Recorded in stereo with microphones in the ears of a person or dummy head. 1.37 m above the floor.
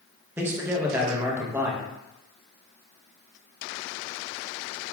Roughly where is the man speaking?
Centre.